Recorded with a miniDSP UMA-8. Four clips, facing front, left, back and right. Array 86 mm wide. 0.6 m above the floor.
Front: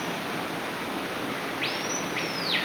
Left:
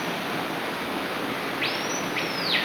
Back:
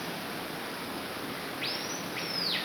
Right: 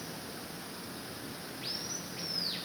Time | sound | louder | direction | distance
0.0 | running water | left 15 dB, front 6 dB | 65° left | ?